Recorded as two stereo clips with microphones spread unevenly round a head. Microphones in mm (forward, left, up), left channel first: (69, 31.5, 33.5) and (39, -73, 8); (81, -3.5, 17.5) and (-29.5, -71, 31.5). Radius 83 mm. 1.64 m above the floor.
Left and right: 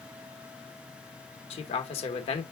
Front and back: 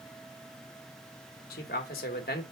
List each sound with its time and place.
1.5 s a man speaking: 65° left, 1.8 m